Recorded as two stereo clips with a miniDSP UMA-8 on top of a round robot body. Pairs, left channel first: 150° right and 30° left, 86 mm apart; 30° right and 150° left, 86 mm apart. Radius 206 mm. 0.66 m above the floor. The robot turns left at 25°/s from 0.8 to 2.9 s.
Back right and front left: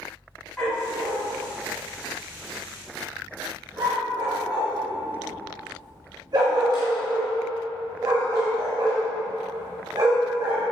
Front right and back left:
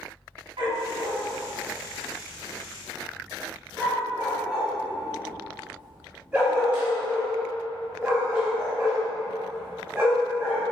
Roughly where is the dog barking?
Behind left.